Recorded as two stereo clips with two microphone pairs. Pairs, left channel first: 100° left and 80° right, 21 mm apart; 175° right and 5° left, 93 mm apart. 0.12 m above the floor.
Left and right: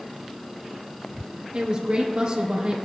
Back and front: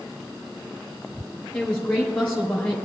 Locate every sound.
1.5 s a woman speaking: 100° right, 1.8 m